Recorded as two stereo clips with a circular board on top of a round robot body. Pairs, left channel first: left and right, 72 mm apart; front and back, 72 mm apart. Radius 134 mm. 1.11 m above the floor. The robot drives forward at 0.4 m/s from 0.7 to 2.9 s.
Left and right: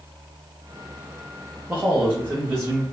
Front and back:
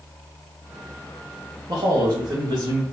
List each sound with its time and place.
1.7 s a man speaking: 155° right, 0.8 m; by 2.8 s 165° right, 1.2 m